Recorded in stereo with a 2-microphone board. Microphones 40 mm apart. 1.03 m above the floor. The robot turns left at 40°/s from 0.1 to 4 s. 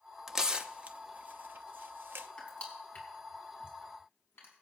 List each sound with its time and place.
0.3 s tearing paper: 10° right (ahead or behind), 0.7 m; by 2.3 s 60° right (ahead or behind), 0.7 m
2.4 s crushing: 25° left (ahead or behind), 4 m; by 4.5 s 85° left, 4 m